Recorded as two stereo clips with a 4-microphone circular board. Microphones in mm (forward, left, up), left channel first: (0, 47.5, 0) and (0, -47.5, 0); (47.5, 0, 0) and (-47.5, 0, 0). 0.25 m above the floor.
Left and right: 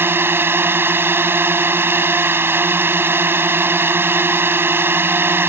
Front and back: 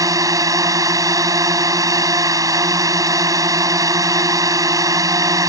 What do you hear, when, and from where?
0.0 s a drone: 150° right